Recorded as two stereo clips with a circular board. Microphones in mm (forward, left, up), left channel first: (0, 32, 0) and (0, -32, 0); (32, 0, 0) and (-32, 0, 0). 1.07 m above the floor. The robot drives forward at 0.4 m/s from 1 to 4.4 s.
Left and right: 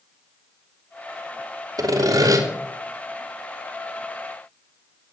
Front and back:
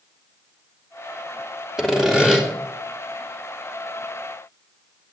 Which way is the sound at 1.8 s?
95° right.